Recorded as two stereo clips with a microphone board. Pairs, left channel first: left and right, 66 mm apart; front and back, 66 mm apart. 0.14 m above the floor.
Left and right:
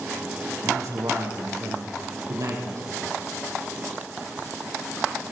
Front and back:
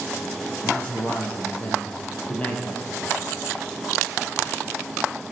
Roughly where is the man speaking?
Ahead right.